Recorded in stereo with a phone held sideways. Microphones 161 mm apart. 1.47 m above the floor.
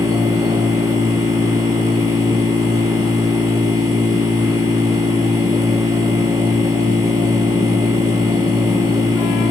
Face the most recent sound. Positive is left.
turn(degrees=-20)  # may be behind; listen again after turning